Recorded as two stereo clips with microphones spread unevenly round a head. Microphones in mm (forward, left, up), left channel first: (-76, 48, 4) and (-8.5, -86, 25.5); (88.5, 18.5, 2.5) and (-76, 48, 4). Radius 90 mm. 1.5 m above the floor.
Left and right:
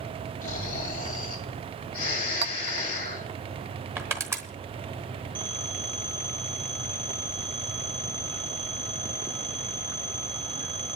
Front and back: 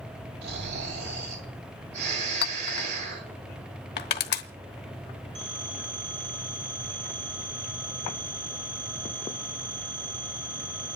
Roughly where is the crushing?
Ahead.